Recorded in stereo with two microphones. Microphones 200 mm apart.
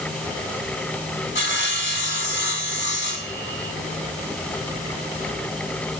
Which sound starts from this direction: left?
Sawing, at 1.4 s.